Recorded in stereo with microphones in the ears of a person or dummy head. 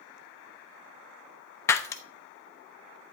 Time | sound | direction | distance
1.7 | breaking glass | 15° left (ahead or behind) | 0.8 m